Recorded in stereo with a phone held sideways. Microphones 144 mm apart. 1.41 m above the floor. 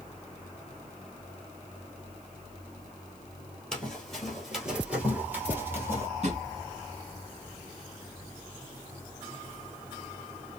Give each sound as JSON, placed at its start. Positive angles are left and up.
{"t": 3.7, "sound": "running footsteps", "side_deg": 5, "distance_m": 1.5}
{"t": 6.2, "sound": "a drawer", "side_deg": -50, "distance_m": 1.2}